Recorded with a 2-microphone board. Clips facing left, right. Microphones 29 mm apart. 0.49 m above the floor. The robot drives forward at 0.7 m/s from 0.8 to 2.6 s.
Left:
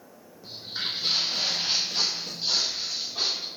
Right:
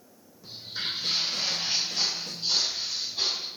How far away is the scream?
I don't hear a scream.